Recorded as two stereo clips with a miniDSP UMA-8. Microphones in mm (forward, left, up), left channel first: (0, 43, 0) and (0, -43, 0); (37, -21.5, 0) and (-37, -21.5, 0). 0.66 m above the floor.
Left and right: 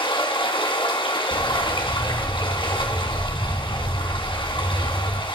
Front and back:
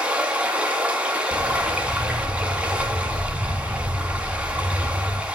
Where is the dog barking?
145° left, 3 m.